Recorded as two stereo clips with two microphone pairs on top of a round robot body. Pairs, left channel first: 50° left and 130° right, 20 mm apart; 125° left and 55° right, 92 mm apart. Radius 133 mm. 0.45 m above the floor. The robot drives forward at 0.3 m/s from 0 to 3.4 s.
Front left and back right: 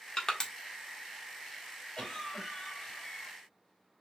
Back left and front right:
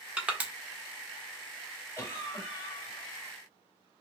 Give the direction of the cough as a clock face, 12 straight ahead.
10 o'clock.